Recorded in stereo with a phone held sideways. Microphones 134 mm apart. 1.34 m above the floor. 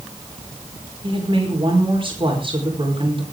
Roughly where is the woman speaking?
Right.